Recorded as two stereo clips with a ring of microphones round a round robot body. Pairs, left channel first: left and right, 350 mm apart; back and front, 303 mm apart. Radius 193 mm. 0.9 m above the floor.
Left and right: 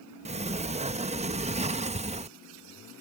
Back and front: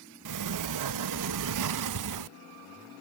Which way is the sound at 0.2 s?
20° right.